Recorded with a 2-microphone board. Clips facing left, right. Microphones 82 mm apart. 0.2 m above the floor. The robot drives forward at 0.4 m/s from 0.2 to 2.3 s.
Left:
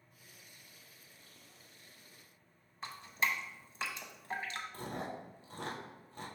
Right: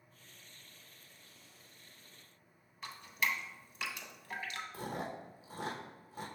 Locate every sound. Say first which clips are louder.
2.8 s dripping: left 1 dB; 30° left (ahead or behind), 0.6 m
4.7 s chewing: right 3 dB; 5° right (ahead or behind), 1.1 m